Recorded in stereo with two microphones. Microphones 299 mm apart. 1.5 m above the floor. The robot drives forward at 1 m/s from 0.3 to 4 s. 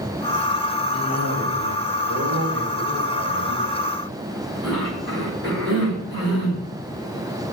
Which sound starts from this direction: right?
A cough, at 0.9 s.